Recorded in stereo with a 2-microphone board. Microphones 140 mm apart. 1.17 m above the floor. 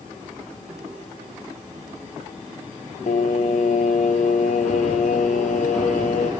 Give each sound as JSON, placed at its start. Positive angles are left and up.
{"t": 3.1, "sound": "singing", "side_deg": 60, "distance_m": 0.6}